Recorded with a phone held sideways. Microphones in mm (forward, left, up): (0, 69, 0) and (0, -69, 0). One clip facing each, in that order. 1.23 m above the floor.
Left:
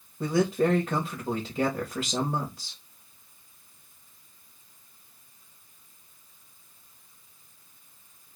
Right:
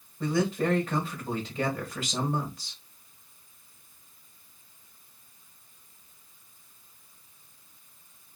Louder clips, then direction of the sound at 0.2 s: Left 3 dB; 30° left (ahead or behind).